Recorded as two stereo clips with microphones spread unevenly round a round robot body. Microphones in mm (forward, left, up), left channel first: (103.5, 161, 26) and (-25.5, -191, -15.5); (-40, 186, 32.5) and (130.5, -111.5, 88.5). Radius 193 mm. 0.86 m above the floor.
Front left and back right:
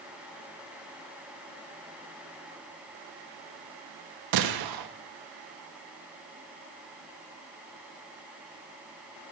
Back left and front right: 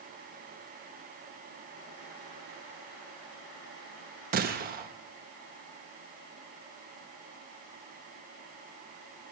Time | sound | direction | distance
4.3 | a gunshot | 130° right | 1.0 m